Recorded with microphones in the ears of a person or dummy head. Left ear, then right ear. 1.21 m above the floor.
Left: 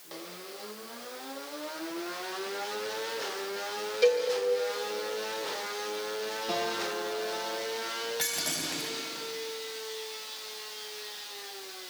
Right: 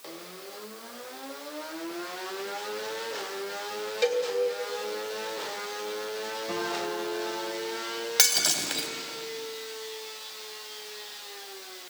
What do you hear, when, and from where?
4.0 s a cowbell: 25° right (ahead or behind), 3.5 m
6.5 s a guitar: 25° left (ahead or behind), 7.5 m
8.2 s breaking glass: 75° right (ahead or behind), 3 m